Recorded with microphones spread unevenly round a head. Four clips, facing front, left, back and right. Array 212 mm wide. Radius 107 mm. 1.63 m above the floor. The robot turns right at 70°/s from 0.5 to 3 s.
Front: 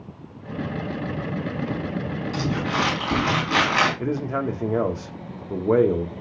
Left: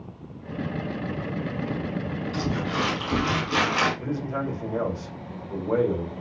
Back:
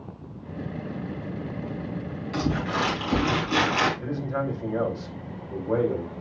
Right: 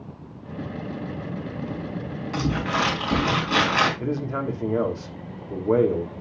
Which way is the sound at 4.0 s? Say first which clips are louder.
Right 2 dB, front 4 dB; 20° right.